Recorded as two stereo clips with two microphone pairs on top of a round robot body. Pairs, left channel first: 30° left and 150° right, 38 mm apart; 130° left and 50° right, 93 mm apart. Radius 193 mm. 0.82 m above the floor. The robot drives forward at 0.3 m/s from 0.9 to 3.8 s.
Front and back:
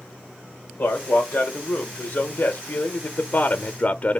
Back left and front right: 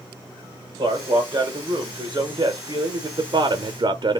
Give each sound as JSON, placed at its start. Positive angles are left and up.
{"t": 0.8, "sound": "a man speaking", "azimuth_deg": -5, "distance_m": 1.2}